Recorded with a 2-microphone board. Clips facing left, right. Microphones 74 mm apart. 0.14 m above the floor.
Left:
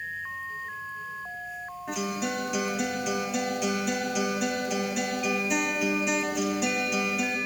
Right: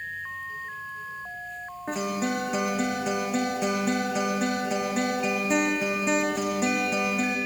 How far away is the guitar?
About 3 m.